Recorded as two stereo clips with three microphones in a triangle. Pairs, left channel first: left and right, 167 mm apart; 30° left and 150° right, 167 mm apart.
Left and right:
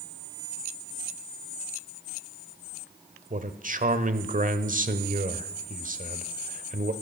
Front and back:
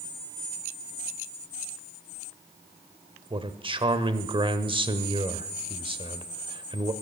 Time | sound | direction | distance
3.3 | a man speaking | 100° right | 1.3 m